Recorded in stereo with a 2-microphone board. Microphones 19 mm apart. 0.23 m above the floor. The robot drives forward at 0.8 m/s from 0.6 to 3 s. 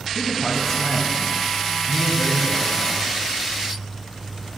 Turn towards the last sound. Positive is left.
turn(degrees=15)  # may be behind; listen again after turning